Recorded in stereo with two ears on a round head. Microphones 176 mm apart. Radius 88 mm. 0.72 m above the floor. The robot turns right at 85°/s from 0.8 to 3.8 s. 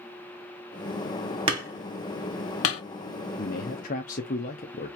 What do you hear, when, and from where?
1.5 s hammering: 25° right (ahead or behind), 2 m; by 2.8 s 85° left, 2 m
3.4 s a man speaking: 85° left, 1.0 m; by 5.0 s 120° left, 1.0 m